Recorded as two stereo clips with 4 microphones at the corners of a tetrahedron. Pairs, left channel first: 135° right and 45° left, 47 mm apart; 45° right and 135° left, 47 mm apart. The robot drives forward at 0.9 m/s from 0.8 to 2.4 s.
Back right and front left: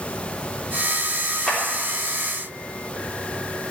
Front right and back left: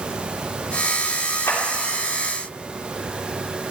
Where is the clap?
50° right, 3.5 m; by 1.6 s 55° right, 3.5 m.